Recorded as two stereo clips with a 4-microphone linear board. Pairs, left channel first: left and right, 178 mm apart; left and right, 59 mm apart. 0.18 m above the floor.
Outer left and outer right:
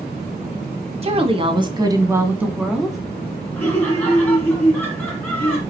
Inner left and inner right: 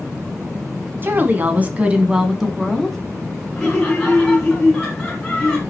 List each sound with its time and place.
1.0 s a woman speaking: 35° right (ahead or behind), 1.4 m; by 3.0 s centre (ahead or behind), 1.5 m
3.6 s laughter: 10° left (ahead or behind), 2.5 m